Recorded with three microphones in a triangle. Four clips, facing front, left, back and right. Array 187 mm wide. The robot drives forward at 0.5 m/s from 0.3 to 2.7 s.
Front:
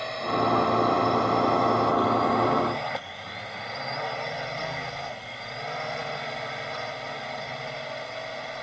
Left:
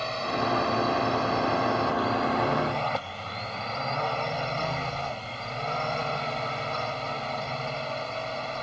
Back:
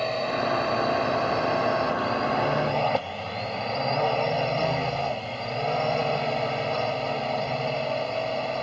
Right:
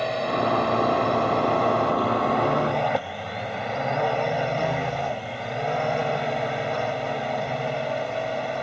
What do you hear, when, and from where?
0.0 s a drone: 125° right; by 8.6 s 130° right